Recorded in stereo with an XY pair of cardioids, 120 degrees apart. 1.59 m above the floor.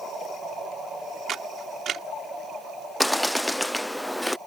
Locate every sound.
1.3 s a camera shutter: 50° right
3.0 s a bird: straight ahead